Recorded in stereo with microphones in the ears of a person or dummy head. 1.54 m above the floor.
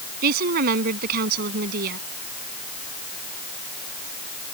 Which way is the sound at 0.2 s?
55° right (ahead or behind).